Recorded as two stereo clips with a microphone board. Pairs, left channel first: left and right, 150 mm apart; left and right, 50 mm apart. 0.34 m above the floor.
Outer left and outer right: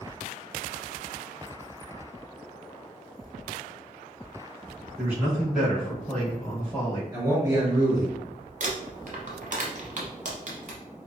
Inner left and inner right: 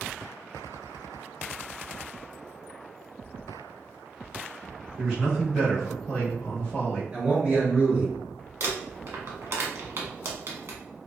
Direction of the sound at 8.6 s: 60° right (ahead or behind).